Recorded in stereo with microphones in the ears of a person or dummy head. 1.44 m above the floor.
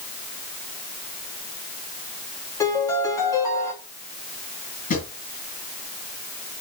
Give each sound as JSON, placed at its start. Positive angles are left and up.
{"t": 2.6, "sound": "a piano", "side_deg": 15, "distance_m": 3.0}
{"t": 4.9, "sound": "a drawer", "side_deg": 40, "distance_m": 5.0}